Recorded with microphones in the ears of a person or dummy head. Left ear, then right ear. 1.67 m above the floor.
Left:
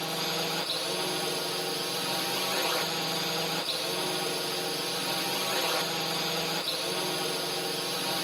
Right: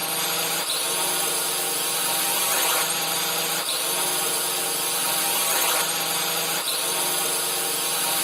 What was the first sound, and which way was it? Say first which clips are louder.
A drone: right 4 dB; 45° right (ahead or behind).